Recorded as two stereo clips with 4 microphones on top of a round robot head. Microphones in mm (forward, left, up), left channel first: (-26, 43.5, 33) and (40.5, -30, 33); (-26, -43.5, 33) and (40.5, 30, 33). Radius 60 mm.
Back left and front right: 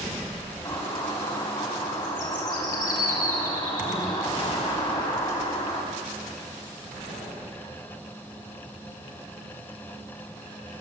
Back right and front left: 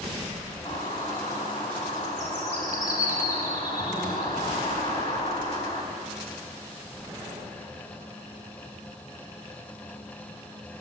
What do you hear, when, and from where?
0.7 s a bird: straight behind, 1.9 m